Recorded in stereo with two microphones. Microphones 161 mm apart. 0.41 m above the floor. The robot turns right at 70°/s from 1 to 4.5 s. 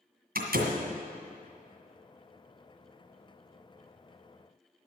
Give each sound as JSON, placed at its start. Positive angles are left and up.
{"t": 0.3, "sound": "a door slam", "side_deg": -75, "distance_m": 1.9}